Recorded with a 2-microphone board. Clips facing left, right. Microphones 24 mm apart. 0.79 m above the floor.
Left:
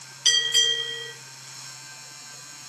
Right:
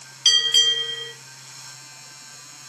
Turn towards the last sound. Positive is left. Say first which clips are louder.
# right 4 dB
turn(degrees=-40)  # may be behind; listen again after turning